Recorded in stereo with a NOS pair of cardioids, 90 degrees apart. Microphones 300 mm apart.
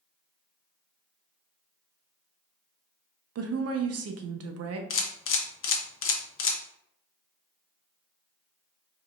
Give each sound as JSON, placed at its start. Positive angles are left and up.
{"t": 3.4, "sound": "a woman speaking", "azimuth_deg": -55, "distance_m": 0.9}
{"t": 4.9, "sound": "a camera shutter", "azimuth_deg": 45, "distance_m": 0.9}